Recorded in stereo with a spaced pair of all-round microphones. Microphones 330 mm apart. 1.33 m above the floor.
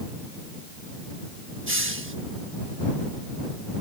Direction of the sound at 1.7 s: 40° right (ahead or behind).